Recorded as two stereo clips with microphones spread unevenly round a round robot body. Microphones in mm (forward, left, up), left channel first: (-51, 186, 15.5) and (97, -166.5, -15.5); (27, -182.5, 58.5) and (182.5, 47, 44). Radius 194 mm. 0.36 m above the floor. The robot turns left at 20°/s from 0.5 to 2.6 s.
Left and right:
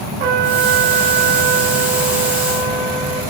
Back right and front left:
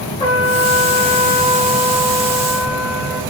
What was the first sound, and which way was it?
A trumpet, 45° right.